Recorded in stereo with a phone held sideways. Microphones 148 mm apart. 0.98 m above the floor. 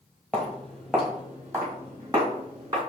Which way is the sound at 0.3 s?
10° left (ahead or behind).